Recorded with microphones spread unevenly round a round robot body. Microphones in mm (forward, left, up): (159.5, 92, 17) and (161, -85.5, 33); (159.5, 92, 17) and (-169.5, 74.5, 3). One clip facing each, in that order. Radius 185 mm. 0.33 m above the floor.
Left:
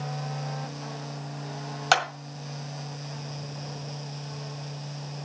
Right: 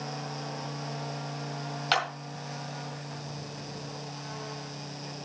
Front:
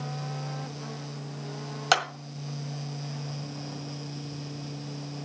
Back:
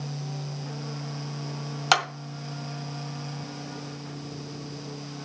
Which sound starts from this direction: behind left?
A clap, at 1.9 s.